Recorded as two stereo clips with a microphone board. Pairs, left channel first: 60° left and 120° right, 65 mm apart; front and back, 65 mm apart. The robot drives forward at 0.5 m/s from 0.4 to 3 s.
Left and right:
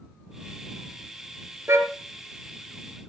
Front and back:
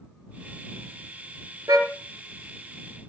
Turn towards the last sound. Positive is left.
turn(degrees=-170)